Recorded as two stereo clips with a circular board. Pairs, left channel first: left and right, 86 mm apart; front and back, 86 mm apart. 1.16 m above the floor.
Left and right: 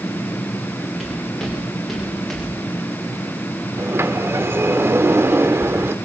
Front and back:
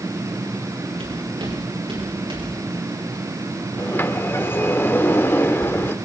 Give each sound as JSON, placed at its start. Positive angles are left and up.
{"t": 1.0, "sound": "footsteps", "azimuth_deg": 180, "distance_m": 9.5}
{"t": 3.8, "sound": "a sliding door", "azimuth_deg": -50, "distance_m": 0.9}